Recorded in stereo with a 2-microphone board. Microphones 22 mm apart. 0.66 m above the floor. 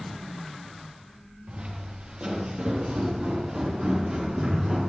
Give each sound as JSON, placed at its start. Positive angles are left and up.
{"t": 1.5, "sound": "footsteps", "side_deg": -55, "distance_m": 6.0}